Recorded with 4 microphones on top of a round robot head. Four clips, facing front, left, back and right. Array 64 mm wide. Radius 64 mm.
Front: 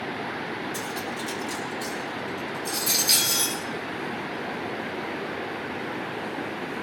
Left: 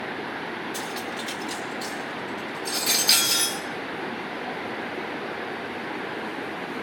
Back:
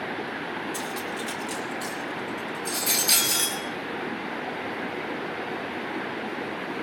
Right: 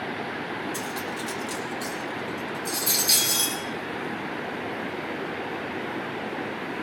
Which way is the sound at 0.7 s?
110° left.